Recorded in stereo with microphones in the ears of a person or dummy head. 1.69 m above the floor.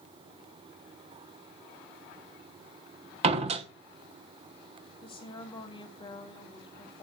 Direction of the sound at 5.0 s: 20° left (ahead or behind).